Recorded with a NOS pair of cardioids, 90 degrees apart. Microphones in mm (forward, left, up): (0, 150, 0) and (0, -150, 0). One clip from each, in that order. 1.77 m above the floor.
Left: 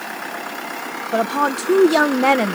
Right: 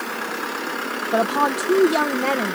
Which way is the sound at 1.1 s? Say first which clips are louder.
Left 1 dB; 5° right.